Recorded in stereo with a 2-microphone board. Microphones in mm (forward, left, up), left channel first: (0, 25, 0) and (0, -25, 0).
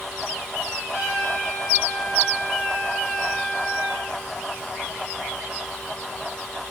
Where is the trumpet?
85° left, 3.5 m.